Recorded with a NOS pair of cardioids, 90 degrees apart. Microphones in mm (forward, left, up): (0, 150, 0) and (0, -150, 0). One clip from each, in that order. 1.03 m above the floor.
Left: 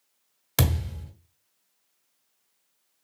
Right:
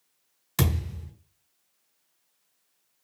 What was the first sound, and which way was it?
A thud, 55° left.